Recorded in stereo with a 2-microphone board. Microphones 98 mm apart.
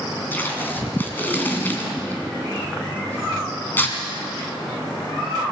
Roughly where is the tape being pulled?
Left.